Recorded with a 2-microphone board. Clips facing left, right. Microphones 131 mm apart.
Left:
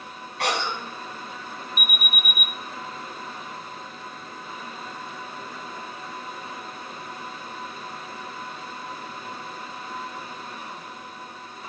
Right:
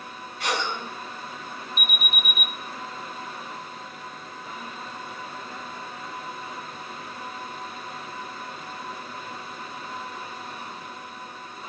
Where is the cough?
90° left, 8 m.